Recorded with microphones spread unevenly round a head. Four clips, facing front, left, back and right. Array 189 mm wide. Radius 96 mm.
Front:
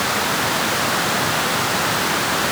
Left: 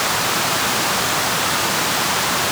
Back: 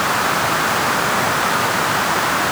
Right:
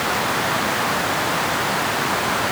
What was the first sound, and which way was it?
Only background noise.